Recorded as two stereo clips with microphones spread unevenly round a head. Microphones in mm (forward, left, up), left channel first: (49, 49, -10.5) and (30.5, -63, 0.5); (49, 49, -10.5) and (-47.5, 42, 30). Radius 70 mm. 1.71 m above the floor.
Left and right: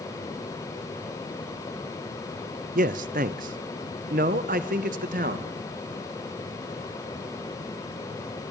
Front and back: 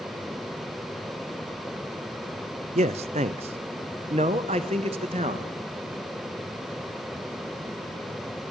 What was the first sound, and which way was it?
A man speaking, 135° right.